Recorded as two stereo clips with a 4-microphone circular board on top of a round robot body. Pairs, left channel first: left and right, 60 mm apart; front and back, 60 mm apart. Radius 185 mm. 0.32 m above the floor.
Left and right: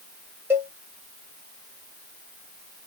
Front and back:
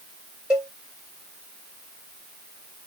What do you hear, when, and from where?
0.5 s a cowbell: 115° right, 1.5 m